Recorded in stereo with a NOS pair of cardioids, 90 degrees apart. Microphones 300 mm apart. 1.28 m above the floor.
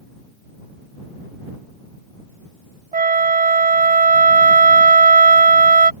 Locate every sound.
2.9 s a flute: 25° right